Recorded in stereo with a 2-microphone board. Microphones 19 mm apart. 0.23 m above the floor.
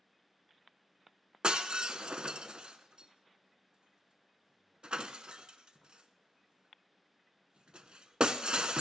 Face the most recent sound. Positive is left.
turn(degrees=-75)  # may be behind; listen again after turning